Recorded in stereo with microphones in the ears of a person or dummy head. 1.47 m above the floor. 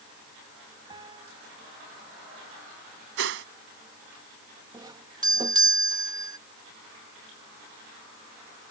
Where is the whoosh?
75° right (ahead or behind).